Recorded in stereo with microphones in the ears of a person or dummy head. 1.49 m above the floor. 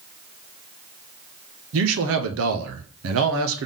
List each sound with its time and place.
1.7 s a man speaking: 70° right (ahead or behind), 0.8 m